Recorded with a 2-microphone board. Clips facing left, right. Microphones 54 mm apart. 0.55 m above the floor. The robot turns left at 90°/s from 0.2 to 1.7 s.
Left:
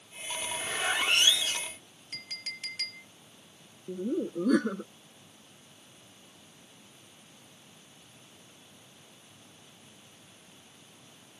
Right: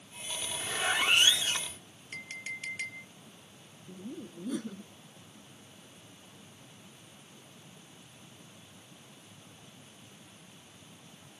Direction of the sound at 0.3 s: 55° left.